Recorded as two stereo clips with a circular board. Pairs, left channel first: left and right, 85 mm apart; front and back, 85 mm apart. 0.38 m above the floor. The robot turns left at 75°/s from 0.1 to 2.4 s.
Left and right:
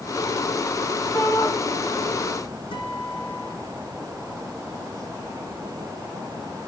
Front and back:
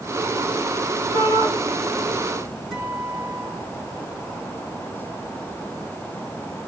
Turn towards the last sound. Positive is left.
turn(degrees=95)